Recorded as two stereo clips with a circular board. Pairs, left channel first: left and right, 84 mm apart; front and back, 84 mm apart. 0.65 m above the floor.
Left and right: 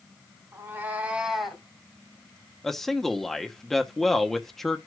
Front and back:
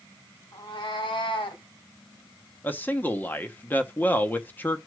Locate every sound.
0.5 s a cat meowing: 30° right, 2.5 m; by 1.6 s 5° left, 2 m
2.6 s a man speaking: 5° left, 1.0 m